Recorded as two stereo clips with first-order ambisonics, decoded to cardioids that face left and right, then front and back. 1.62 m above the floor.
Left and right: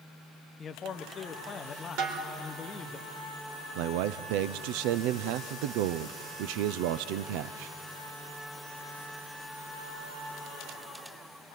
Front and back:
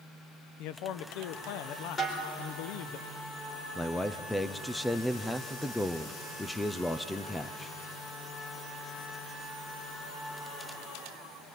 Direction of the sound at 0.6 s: 25° left.